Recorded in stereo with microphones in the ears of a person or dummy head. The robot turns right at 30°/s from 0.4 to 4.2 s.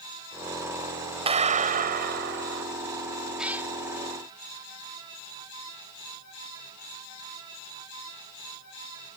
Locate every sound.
1.3 s a clap: 145° right; by 2.6 s 105° right
3.4 s a cat meowing: 5° right (ahead or behind); by 3.7 s 10° right (ahead or behind)